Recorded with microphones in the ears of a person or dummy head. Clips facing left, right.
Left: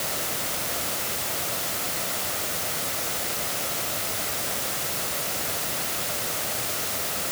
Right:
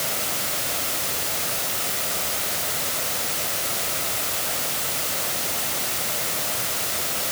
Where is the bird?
No bird in this recording.